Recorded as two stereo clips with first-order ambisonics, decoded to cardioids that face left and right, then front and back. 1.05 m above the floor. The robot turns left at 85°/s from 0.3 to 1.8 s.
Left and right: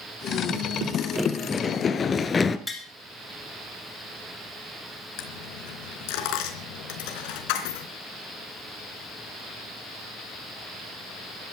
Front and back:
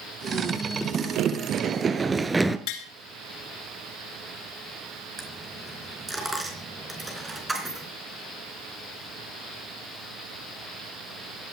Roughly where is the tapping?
Ahead.